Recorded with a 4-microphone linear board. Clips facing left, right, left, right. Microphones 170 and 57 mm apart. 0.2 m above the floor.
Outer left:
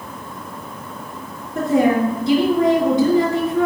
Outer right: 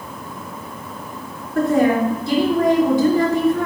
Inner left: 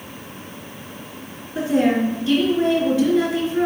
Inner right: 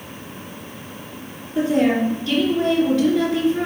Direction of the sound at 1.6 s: 20° left (ahead or behind).